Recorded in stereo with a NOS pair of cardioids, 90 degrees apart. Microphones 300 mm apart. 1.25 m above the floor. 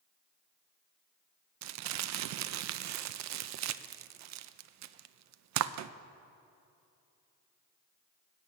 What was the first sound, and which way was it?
Crumpling, 70° right.